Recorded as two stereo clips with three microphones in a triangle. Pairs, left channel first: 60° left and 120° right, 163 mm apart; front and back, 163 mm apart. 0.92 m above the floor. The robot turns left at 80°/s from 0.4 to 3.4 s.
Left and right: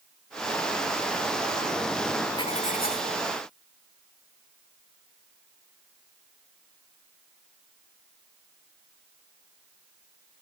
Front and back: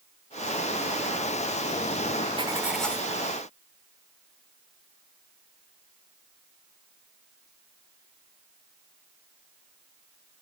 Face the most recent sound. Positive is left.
turn(degrees=40)